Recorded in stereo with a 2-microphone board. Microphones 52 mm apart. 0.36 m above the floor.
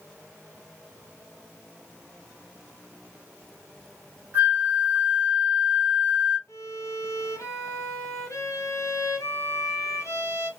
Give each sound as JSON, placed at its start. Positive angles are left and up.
{"t": 4.3, "sound": "a flute", "side_deg": -25, "distance_m": 1.3}
{"t": 6.5, "sound": "a violin", "side_deg": 80, "distance_m": 1.0}